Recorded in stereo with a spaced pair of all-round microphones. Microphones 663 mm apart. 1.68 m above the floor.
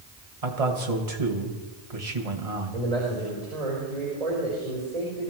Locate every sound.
0.4 s a man speaking: 60° right (ahead or behind), 1.8 m
2.7 s a man speaking: 70° right (ahead or behind), 5 m